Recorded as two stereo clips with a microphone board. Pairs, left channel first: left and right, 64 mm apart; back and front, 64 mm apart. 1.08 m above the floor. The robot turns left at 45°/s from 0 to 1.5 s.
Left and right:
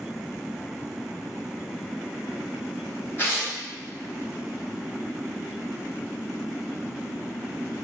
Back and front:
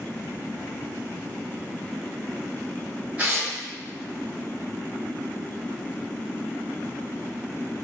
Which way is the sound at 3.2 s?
55° left.